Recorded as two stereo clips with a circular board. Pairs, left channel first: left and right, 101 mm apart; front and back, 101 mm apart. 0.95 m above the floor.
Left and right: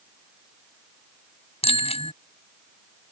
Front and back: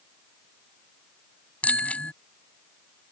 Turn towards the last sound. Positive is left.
turn(degrees=75)